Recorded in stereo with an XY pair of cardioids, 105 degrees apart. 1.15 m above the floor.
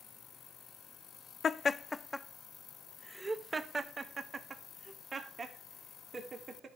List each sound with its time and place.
1.4 s laughter: 45° left, 0.6 m; by 6.7 s 40° right, 3 m